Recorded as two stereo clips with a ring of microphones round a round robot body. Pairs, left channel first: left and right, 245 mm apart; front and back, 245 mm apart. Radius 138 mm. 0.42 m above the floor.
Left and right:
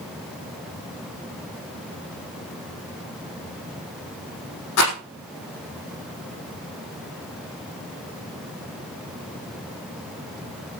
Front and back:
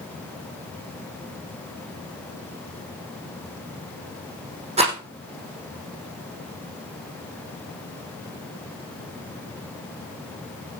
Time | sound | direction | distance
4.8 | a rattle | 110° left | 5.5 m